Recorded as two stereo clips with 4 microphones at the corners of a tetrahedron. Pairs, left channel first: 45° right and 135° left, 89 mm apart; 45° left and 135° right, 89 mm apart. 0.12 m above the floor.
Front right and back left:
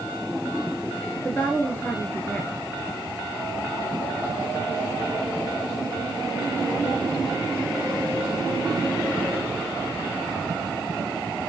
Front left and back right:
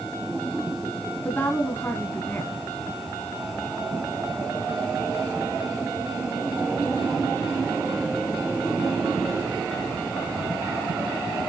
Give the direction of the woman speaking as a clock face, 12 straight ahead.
12 o'clock.